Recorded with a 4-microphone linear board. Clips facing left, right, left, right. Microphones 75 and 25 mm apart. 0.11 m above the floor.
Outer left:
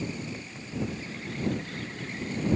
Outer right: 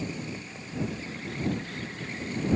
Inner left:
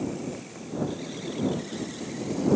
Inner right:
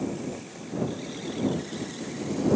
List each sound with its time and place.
Only background noise.